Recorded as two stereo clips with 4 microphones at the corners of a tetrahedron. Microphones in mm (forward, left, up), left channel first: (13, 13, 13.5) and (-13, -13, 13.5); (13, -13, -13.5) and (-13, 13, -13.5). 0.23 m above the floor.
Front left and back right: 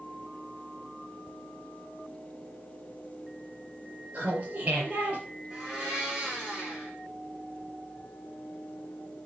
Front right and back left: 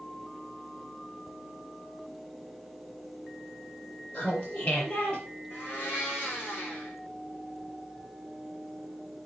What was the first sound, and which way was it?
Laughter, 80° right.